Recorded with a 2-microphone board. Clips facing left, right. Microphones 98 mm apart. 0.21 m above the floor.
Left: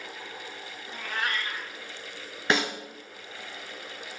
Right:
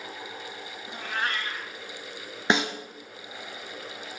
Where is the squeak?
I don't hear a squeak.